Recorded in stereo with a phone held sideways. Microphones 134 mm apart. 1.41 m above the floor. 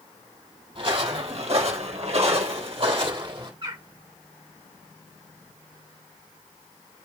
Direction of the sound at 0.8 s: 40° right (ahead or behind).